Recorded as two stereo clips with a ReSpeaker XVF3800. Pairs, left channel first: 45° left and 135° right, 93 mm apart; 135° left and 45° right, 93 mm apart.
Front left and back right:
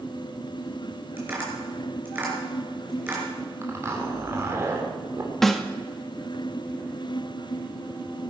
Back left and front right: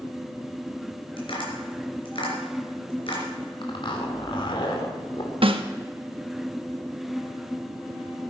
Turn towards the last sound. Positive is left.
turn(degrees=-40)